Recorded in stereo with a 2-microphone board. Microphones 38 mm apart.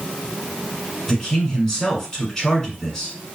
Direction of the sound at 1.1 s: 15° left (ahead or behind).